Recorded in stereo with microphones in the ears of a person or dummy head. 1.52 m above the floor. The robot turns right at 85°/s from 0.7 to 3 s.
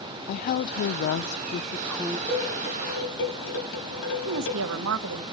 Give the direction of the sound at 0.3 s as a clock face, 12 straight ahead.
10 o'clock.